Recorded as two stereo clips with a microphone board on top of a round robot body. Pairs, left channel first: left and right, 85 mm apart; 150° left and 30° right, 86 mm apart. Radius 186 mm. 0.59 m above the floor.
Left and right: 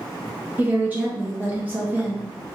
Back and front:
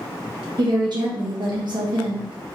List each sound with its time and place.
0.6 s a woman speaking: 25° right, 1.0 m